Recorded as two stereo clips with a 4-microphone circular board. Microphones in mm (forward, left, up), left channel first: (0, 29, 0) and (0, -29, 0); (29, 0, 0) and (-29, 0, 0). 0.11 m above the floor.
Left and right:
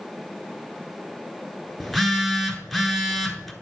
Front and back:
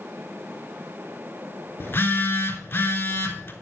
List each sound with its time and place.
1.8 s a phone buzzing: 5° right, 1.0 m